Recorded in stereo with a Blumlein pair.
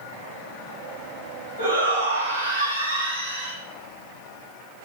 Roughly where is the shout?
Right.